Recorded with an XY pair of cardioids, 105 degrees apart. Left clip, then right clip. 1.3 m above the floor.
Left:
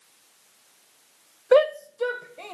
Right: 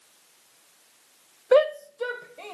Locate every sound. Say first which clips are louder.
1.5 s a shout: left 1 dB; 15° left, 0.6 m; by 2.5 s 10° left, 1.5 m